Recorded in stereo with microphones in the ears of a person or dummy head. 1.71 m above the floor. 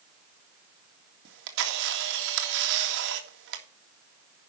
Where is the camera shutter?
75° right (ahead or behind), 2 m.